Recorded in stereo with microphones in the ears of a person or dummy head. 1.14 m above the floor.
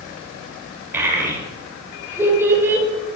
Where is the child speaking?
10° right (ahead or behind), 2 m.